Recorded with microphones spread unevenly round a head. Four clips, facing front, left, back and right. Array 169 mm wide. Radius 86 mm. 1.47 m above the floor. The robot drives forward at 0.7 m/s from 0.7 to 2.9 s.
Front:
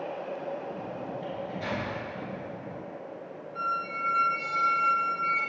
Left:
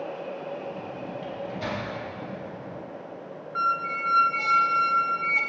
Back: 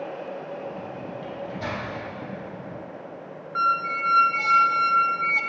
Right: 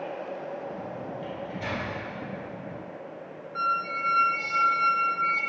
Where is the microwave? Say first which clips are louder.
Left 2 dB, back 4 dB; 115° left, 2 m; by 1.9 s 125° left, 2.5 m.